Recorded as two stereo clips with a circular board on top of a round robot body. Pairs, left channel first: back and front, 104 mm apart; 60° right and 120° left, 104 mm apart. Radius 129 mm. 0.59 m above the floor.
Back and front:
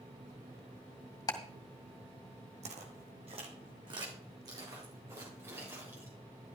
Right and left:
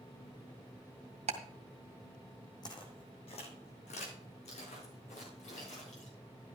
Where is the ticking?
125° left, 2.5 m.